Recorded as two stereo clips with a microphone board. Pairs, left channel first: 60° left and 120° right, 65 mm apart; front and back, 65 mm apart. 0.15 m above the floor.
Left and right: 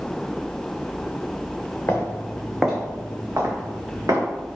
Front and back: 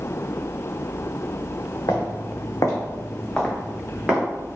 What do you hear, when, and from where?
1.9 s footsteps: 5° left, 0.9 m; by 4.2 s 105° right, 1.3 m